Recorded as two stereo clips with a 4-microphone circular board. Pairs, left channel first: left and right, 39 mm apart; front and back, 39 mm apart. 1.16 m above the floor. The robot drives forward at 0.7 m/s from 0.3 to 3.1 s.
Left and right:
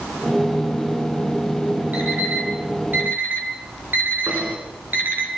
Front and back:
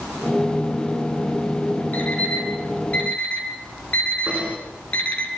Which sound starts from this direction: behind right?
Knocking, at 4.3 s.